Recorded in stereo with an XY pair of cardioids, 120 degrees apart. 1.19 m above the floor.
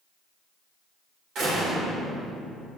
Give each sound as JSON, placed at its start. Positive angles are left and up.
{"t": 1.4, "sound": "a door slam", "azimuth_deg": -65, "distance_m": 3.5}